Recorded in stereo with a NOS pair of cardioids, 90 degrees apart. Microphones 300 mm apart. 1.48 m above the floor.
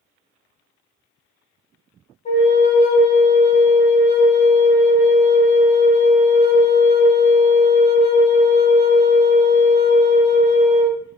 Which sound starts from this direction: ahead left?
A flute, at 2.2 s.